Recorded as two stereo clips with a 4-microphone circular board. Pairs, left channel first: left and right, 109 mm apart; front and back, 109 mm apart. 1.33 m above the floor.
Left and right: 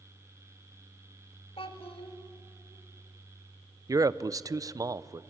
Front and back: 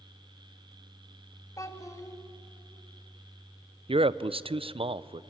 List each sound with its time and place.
1.6 s a child speaking: 60° left, 1.9 m
3.9 s a man speaking: 150° right, 0.5 m